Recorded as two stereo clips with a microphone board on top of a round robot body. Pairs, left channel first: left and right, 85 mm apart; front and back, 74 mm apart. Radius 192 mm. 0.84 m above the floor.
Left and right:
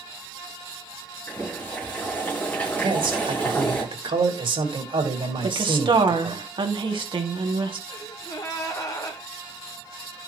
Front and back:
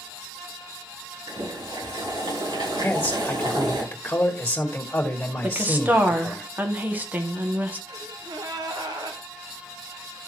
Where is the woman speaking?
115° right, 2.5 m.